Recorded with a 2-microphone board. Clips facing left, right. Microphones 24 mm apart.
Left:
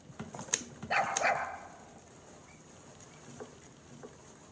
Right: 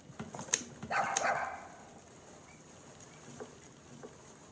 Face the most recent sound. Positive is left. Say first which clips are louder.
# left 2 dB
turn(degrees=35)  # may be behind; listen again after turning